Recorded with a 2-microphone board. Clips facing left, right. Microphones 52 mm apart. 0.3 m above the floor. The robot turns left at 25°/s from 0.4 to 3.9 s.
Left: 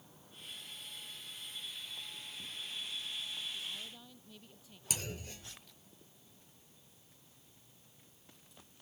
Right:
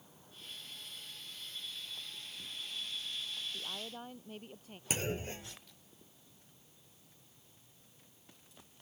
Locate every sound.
3.5 s a woman speaking: 50° right (ahead or behind); by 4.8 s 45° right (ahead or behind)
4.9 s a clunk: 35° right (ahead or behind)